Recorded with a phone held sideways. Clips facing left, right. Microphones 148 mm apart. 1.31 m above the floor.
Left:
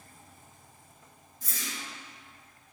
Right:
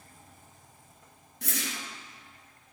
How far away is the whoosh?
About 1.1 m.